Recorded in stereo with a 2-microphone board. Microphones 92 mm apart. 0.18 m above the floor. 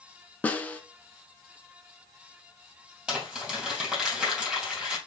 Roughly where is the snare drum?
Centre.